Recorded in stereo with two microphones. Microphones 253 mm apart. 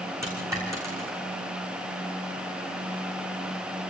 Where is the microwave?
I don't hear a microwave.